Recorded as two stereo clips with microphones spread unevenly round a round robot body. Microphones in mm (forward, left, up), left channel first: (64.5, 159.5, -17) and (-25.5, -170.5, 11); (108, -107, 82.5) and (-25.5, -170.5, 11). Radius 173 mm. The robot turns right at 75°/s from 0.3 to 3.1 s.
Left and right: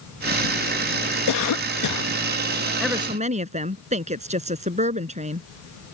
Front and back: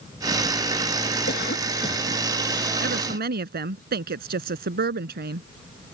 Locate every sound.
1.3 s a cough: 55° left; by 2.1 s 120° left
2.8 s a woman speaking: 160° left; by 5.5 s 175° right